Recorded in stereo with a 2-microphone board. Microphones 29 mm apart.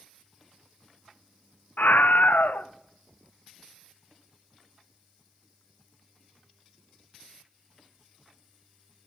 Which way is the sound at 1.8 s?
85° left.